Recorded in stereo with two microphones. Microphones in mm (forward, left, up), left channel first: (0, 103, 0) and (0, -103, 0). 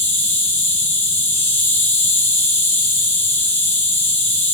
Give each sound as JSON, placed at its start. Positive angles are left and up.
{"t": 0.0, "sound": "an insect", "side_deg": 10, "distance_m": 0.7}